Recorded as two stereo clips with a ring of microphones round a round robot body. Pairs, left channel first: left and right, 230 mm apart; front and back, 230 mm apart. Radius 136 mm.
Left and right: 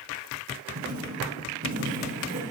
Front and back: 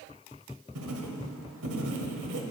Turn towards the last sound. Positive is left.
turn(degrees=-150)